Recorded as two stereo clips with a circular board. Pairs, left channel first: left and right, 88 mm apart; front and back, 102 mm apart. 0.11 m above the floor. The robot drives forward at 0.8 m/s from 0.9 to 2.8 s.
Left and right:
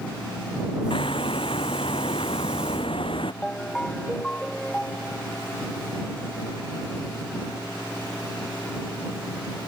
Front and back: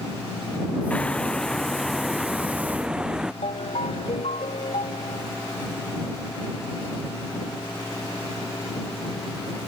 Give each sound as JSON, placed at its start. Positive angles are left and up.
{"t": 0.9, "sound": "hammering", "azimuth_deg": 80}
{"t": 3.4, "sound": "a ringtone", "azimuth_deg": 10}